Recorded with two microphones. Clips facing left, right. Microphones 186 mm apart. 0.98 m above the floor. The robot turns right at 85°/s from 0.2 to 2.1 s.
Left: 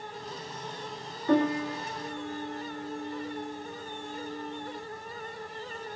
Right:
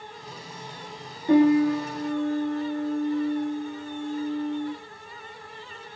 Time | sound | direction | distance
1.3 | a piano | 150° right | 1.6 m